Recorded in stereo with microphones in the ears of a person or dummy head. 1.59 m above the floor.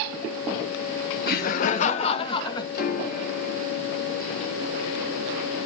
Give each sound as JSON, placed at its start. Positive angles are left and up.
{"t": 1.3, "sound": "laughter", "side_deg": 50, "distance_m": 0.9}
{"t": 2.7, "sound": "a piano", "side_deg": 50, "distance_m": 2.5}